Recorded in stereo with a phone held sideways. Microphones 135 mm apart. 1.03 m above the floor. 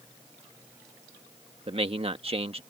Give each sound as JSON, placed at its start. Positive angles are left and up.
{"t": 1.7, "sound": "a man speaking", "side_deg": -45}